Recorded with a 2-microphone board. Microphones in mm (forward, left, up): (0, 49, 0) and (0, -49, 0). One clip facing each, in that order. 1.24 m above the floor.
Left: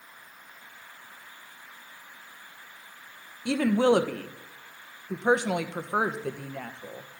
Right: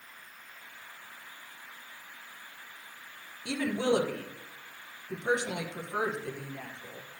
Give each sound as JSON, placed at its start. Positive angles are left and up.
{"t": 3.5, "sound": "a woman speaking", "side_deg": 60, "distance_m": 0.9}